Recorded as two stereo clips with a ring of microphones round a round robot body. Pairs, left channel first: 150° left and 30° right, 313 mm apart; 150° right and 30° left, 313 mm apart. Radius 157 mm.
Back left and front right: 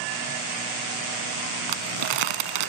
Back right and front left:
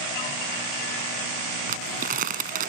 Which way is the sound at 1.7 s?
35° right.